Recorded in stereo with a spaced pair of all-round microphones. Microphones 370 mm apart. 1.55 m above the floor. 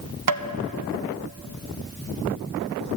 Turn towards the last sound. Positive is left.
turn(degrees=-60)  # may be behind; listen again after turning